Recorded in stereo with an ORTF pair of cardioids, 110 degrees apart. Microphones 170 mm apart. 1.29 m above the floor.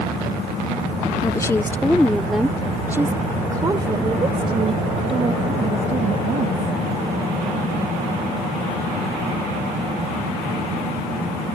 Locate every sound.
1.2 s a woman speaking: 25° left; by 6.8 s 45° right